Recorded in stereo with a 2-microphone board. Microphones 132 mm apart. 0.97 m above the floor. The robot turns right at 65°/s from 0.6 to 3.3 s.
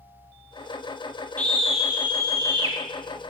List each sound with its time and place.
1.4 s a scream: 160° left, 0.9 m; by 2.8 s 110° right, 0.9 m